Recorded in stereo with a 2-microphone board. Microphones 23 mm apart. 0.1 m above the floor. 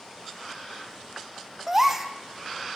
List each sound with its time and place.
1.7 s a gasp: 15° right (ahead or behind), 2.5 m